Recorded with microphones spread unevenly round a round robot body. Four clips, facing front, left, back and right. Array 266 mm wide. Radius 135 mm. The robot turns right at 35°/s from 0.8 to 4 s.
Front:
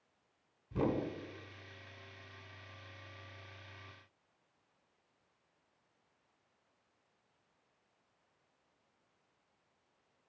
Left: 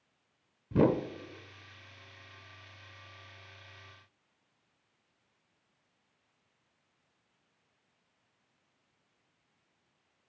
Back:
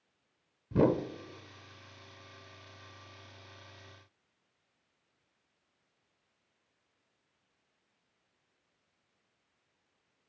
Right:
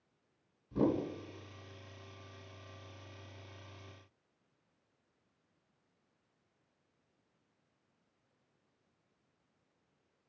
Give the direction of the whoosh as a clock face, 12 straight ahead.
8 o'clock.